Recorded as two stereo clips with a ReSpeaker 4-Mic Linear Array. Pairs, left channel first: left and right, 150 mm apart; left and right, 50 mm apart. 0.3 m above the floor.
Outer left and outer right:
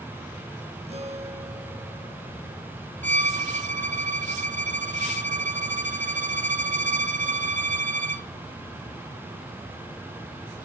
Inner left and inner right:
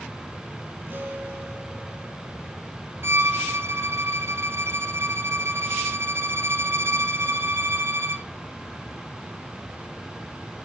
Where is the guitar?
45° right (ahead or behind), 3.5 m.